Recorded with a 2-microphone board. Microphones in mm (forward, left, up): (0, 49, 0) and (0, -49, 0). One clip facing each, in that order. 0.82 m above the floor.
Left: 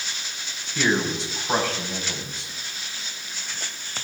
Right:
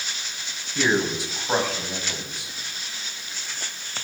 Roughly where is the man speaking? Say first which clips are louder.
Right 1 dB; centre.